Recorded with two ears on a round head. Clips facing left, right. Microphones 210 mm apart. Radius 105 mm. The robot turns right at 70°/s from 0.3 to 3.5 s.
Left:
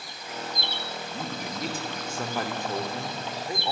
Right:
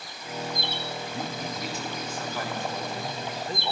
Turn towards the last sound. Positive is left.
turn(degrees=165)